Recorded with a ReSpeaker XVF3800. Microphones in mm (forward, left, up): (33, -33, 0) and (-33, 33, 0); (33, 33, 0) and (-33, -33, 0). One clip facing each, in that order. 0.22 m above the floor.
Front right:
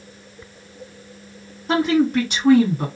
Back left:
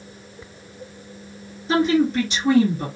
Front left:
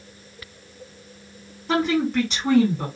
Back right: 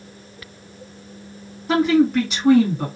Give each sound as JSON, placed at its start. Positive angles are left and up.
{"t": 1.7, "sound": "a woman speaking", "azimuth_deg": -45, "distance_m": 2.0}